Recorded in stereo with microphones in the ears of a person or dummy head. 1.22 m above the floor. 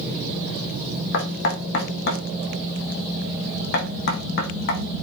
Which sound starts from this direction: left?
Knocking, at 1.1 s.